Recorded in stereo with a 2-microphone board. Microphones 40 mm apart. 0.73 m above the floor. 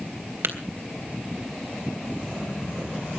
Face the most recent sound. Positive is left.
turn(degrees=-80)